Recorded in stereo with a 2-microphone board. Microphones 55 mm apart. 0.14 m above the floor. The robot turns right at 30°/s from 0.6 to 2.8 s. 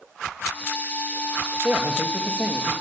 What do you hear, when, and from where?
1.6 s a man speaking: 45° right, 4 m; by 2.7 s 15° right, 4 m